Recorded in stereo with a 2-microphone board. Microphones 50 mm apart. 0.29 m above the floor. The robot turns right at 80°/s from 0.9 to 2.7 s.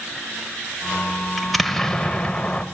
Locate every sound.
1.4 s an explosion: 5° right (ahead or behind), 0.8 m; by 2.6 s 20° left (ahead or behind), 0.8 m